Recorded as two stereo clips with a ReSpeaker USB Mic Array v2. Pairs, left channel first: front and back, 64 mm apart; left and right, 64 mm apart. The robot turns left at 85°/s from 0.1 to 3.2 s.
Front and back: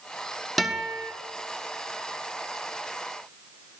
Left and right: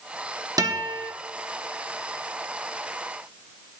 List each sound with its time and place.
0.6 s a guitar: 90° right, 1.3 m; by 1.1 s 135° right, 1.3 m